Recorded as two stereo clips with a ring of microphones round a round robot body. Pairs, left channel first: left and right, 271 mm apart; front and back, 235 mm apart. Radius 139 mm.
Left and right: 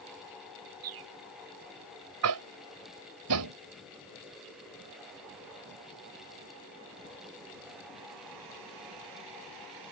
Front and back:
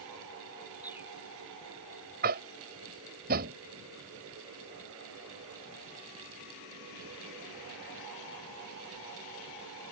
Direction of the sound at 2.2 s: 120° right.